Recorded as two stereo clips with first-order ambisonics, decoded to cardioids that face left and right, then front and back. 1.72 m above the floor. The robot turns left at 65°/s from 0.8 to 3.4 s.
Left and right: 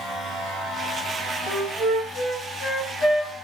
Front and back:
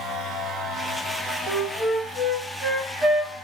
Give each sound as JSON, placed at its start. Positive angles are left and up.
{"t": 1.5, "sound": "a flute", "azimuth_deg": -140, "distance_m": 1.8}